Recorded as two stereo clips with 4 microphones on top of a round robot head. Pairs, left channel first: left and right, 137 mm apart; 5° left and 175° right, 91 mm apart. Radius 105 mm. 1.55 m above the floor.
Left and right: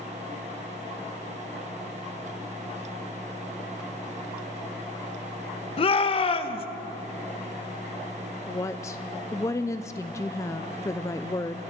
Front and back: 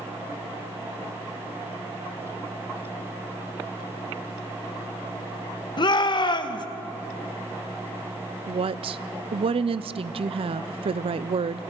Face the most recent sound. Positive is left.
turn(degrees=165)